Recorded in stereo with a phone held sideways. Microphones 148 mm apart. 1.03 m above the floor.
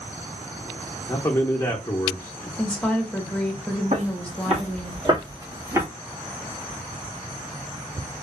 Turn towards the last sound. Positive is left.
turn(degrees=-15)  # may be behind; listen again after turning